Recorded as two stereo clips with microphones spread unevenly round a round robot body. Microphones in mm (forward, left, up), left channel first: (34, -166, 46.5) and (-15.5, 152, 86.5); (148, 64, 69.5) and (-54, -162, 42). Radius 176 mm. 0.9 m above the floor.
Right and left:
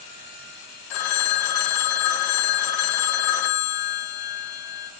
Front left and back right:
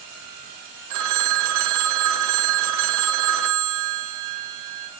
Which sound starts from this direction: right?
A phone ringing, at 0.9 s.